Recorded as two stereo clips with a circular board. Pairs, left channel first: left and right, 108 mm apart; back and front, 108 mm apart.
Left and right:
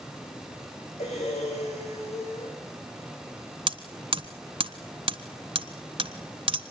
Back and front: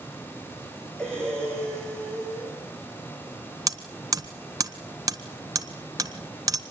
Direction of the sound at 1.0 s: 95° left.